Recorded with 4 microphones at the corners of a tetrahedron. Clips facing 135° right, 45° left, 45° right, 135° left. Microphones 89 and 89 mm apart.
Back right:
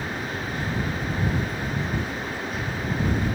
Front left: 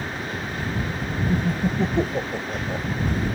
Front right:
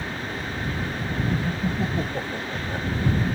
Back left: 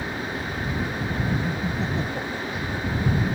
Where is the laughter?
35° left; by 2.9 s 25° left.